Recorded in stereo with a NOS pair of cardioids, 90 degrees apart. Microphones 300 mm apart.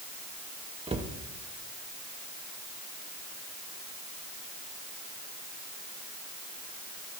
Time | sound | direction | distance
0.9 | a cupboard door | 20° right | 2 m